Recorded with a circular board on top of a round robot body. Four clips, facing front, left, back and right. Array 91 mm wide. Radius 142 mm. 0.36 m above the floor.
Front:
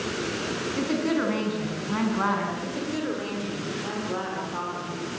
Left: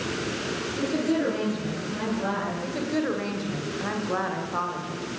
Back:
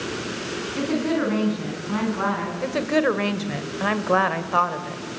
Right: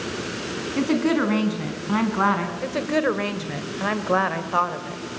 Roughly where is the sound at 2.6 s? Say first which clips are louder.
Right 6 dB, back 8 dB; behind right.